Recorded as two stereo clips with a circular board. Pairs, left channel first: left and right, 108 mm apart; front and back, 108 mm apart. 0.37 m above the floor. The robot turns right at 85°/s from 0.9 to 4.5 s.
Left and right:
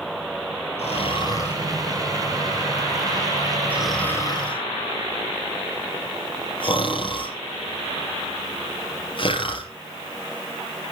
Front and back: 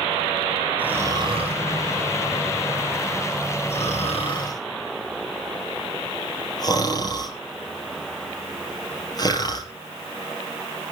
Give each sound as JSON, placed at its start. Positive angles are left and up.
{"t": 0.8, "sound": "snoring", "azimuth_deg": 105, "distance_m": 5.0}